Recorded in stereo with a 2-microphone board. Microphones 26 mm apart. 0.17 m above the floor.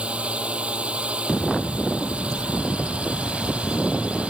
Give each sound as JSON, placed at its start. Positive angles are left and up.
{"t": 0.0, "sound": "a drone", "side_deg": -45}